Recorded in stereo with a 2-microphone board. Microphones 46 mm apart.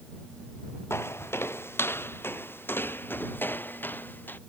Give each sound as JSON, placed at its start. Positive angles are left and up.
{"t": 0.9, "sound": "footsteps", "side_deg": 60}